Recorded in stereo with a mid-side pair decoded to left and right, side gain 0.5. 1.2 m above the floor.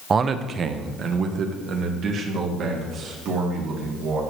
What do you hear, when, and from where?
0.1 s a man speaking: 40° right, 0.6 m; by 4.2 s 70° right, 2.5 m